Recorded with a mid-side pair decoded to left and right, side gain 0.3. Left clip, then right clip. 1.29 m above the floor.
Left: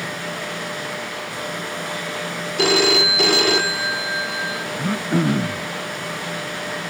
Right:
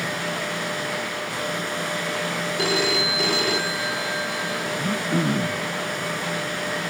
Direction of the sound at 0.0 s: 15° right.